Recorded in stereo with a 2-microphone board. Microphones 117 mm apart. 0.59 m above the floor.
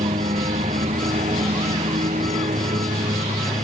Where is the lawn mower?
85° right.